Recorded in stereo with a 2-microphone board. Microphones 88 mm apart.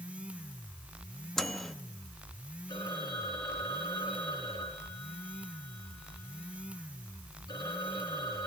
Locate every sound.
1.4 s a microwave: 5° left (ahead or behind), 1.0 m
2.7 s a phone ringing: 60° left (ahead or behind), 8.5 m